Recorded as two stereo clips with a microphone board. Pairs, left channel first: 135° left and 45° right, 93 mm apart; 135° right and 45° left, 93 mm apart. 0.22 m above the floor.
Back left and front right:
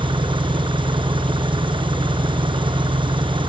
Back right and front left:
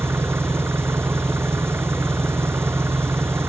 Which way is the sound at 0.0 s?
20° right.